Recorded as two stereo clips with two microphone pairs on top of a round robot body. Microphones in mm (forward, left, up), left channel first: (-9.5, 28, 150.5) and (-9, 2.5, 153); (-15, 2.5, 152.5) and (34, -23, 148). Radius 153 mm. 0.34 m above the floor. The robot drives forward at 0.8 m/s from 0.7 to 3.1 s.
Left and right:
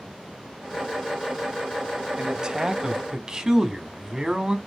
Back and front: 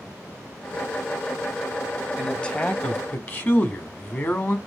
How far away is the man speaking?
About 1.2 m.